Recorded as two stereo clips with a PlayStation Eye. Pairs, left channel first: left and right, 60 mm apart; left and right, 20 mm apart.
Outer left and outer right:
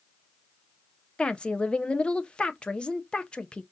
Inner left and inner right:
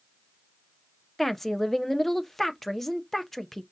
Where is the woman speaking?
15° left (ahead or behind), 0.5 m.